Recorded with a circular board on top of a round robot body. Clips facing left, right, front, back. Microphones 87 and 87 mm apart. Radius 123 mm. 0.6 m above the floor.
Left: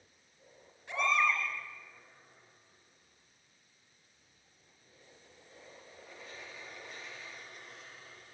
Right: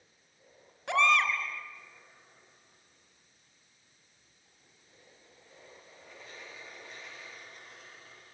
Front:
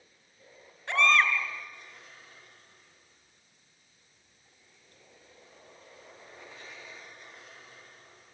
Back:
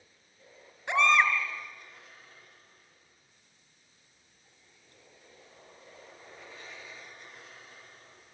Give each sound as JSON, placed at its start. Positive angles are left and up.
{"t": 0.9, "sound": "a baby crying", "azimuth_deg": -105, "distance_m": 4.5}